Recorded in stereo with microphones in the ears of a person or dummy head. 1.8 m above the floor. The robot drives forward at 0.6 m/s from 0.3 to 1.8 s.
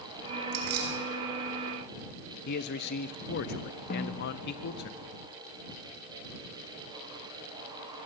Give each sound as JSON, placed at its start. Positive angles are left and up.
{"t": 0.5, "sound": "keys jangling", "side_deg": -60, "distance_m": 2.0}
{"t": 2.5, "sound": "a man speaking", "side_deg": 60, "distance_m": 1.3}
{"t": 3.9, "sound": "a snare drum", "side_deg": 50, "distance_m": 2.5}